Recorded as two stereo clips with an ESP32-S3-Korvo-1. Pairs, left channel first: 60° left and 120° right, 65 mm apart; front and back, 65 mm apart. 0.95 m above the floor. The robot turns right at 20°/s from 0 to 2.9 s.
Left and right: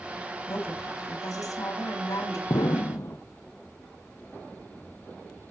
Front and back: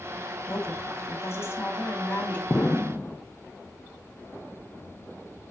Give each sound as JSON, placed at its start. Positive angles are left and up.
{"t": 0.5, "sound": "a woman speaking", "azimuth_deg": 30, "distance_m": 2.5}
{"t": 2.5, "sound": "an explosion", "azimuth_deg": 60, "distance_m": 0.5}